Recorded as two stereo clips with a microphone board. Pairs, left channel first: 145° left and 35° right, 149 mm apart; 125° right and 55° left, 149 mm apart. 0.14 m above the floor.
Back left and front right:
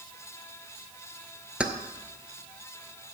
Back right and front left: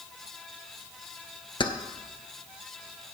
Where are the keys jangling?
110° right, 0.8 m.